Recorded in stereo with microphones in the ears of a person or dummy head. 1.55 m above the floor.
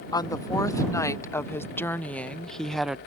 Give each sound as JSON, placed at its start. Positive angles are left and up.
{"t": 0.1, "sound": "a woman speaking", "side_deg": 25}